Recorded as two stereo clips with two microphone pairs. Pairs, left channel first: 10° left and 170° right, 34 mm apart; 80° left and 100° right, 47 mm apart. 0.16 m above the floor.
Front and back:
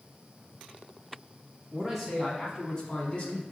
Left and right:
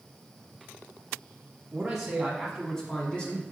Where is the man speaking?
115° right, 1.0 m; by 3.4 s 35° left, 1.3 m.